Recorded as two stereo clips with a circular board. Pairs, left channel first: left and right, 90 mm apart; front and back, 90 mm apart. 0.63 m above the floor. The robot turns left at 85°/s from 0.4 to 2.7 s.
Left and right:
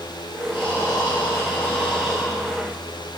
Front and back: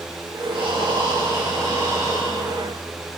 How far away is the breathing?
About 5 m.